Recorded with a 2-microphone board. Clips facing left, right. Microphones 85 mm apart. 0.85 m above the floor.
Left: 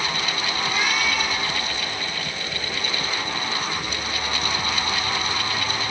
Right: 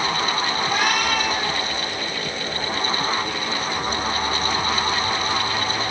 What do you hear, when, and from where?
0.6 s a cat meowing: 55° right (ahead or behind), 5 m